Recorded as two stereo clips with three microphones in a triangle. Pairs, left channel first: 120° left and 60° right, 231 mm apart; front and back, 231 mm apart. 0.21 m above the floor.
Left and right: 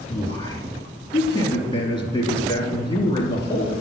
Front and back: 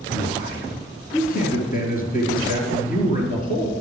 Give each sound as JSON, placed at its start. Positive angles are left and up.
{"t": 0.1, "sound": "a man speaking", "azimuth_deg": 50, "distance_m": 3.0}